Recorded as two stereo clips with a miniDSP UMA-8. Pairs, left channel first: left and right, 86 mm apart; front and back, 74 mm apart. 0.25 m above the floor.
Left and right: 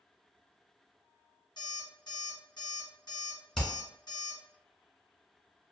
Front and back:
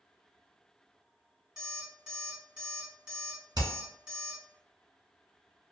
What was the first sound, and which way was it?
An alarm clock, 100° left.